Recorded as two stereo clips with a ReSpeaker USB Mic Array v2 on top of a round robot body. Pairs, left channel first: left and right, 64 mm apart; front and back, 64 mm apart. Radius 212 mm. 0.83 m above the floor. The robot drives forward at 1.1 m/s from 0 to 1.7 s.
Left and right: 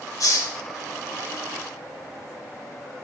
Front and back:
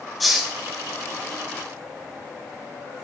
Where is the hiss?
90° left, 1.8 m; by 0.5 s 105° left, 1.8 m.